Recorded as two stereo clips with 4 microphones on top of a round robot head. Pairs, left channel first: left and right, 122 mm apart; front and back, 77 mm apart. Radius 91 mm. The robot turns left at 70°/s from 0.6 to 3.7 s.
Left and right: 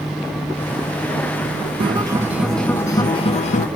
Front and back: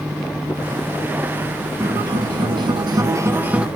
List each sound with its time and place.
1.8 s a guitar: 130° right, 0.7 m; by 3.7 s 100° left, 0.7 m